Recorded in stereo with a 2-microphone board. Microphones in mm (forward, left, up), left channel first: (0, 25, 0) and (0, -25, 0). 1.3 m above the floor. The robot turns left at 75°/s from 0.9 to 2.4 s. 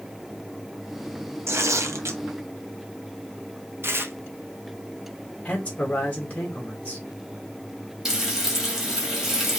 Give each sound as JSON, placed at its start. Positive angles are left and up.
{"t": 1.5, "sound": "tearing paper", "azimuth_deg": -60, "distance_m": 0.7}
{"t": 3.8, "sound": "tearing paper", "side_deg": -55, "distance_m": 0.7}
{"t": 5.5, "sound": "a man speaking", "side_deg": 25, "distance_m": 2.0}
{"t": 8.1, "sound": "frying", "side_deg": -5, "distance_m": 1.8}